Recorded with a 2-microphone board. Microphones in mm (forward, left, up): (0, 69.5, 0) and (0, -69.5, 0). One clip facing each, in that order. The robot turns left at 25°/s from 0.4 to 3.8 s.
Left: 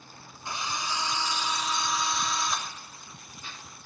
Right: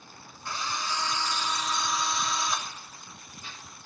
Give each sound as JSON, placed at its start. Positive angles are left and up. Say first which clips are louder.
{"t": 0.5, "sound": "a drill", "louder": "even", "side_deg": 20, "distance_m": 1.2}